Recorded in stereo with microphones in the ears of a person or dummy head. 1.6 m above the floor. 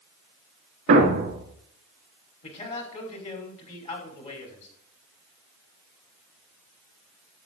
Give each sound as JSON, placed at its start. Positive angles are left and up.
{"t": 0.9, "sound": "a thud", "side_deg": -45, "distance_m": 3.0}
{"t": 2.4, "sound": "a man speaking", "side_deg": 40, "distance_m": 5.5}